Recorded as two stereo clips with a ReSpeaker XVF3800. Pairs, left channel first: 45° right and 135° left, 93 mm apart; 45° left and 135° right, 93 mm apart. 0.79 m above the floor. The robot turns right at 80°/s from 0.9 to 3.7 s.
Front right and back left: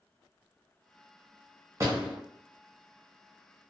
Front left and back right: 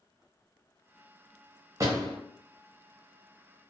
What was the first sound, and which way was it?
A door slam, 175° right.